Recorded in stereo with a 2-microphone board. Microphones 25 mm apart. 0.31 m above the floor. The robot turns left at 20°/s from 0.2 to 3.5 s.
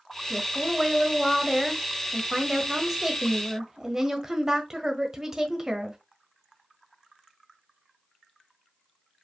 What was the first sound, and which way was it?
A woman speaking, 25° left.